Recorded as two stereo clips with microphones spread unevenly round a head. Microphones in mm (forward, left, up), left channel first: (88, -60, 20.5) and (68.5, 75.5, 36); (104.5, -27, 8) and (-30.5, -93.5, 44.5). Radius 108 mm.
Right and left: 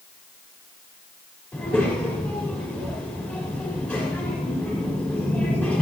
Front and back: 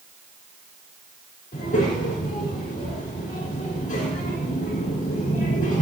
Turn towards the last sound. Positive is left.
turn(degrees=-5)